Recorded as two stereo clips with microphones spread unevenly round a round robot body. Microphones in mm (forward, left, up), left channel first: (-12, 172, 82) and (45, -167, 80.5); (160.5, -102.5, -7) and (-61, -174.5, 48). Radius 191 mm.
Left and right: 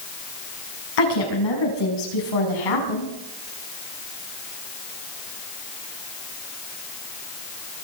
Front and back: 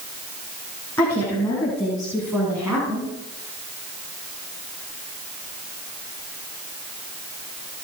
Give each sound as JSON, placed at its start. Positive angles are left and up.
{"t": 1.0, "sound": "a woman speaking", "azimuth_deg": 100, "distance_m": 6.5}